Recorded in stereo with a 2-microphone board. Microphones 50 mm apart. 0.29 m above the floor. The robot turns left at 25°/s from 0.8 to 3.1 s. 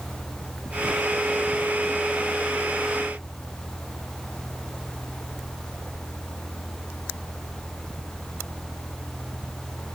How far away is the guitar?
I don't hear a guitar.